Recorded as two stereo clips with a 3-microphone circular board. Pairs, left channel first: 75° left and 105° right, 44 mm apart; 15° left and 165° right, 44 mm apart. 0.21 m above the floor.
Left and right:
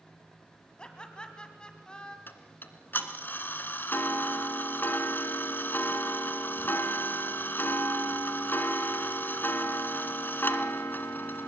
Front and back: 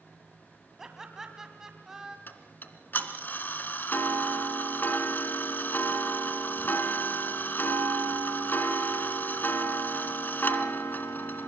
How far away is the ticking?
About 2 m.